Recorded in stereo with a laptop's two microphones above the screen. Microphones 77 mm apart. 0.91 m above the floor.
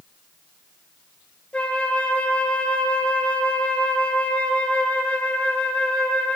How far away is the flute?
About 0.6 m.